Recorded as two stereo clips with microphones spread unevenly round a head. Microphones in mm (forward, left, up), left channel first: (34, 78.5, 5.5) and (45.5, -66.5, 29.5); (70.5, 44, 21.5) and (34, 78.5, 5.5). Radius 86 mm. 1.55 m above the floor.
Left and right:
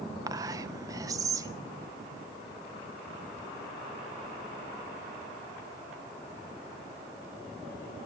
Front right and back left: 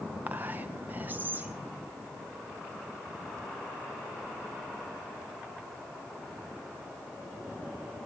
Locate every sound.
0.3 s whispering: 160° right, 0.5 m